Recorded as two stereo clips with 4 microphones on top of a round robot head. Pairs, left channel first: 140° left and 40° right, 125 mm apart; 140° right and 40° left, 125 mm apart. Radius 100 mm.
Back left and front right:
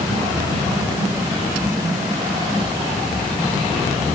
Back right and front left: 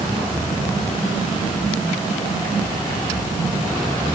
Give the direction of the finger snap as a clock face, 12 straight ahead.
I don't hear a finger snap.